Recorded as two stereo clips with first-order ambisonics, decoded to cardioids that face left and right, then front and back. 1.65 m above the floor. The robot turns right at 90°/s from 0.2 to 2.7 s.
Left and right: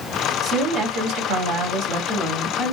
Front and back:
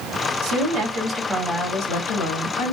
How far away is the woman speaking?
About 1.6 m.